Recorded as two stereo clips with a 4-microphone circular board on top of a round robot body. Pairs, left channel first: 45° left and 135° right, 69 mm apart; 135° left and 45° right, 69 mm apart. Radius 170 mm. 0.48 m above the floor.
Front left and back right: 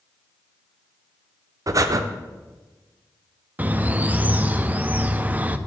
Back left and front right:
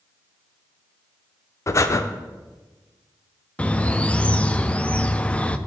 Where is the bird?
175° right, 0.7 m.